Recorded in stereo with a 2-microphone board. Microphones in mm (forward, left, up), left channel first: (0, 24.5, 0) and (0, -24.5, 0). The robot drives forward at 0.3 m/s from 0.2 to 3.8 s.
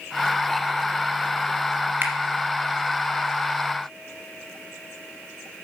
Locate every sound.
2.0 s a finger snap: 35° right (ahead or behind), 1.7 m